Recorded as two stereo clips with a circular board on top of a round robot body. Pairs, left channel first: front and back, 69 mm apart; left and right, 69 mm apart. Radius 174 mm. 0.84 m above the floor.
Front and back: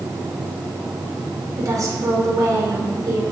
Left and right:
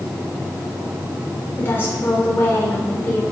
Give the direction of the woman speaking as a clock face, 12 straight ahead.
7 o'clock.